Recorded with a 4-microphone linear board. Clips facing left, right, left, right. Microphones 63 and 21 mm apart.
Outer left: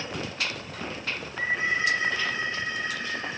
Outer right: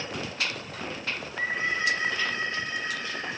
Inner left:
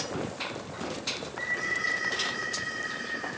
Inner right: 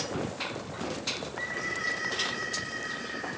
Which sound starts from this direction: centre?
A bird, at 1.2 s.